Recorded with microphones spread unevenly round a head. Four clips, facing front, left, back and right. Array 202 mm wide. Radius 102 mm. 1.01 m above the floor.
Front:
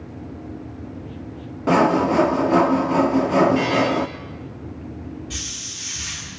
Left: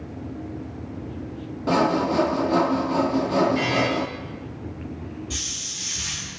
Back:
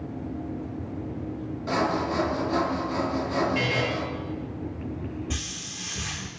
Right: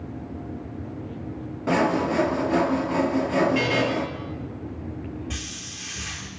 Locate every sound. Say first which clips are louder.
1.7 s sawing: left 1 dB, front 9 dB; 5° left, 0.7 m
3.5 s a buzzer: even, front 8 dB; 135° right, 9 m
5.3 s a hiss: even, even; 170° right, 1.4 m